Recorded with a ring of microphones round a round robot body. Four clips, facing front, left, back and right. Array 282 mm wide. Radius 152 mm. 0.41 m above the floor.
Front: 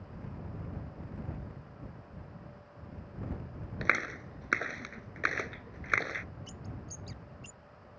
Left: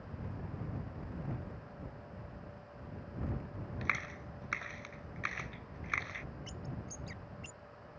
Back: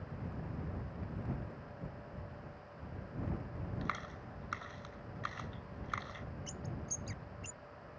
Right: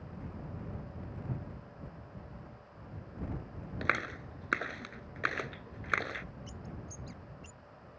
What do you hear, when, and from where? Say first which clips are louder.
3.8 s a clap: right 7 dB, front 11 dB; 35° right
6.5 s a bird: left 1 dB, back 1 dB; 105° left